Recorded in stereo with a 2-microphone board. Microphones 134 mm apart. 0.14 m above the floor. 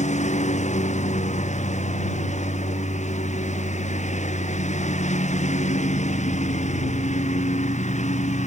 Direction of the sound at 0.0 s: 60° left (ahead or behind).